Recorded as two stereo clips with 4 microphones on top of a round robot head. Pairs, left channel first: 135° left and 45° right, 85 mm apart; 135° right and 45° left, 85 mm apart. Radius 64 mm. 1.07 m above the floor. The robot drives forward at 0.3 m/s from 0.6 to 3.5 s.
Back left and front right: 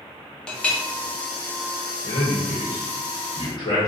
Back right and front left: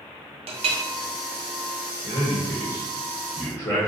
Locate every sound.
0.5 s a clink: 55° left, 0.6 m; by 0.8 s 60° left, 0.6 m
2.0 s a man speaking: 165° left, 1.0 m; by 3.9 s 170° left, 1.4 m